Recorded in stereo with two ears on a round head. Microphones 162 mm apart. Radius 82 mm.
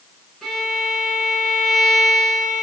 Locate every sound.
0.4 s a violin: centre (ahead or behind), 5.5 m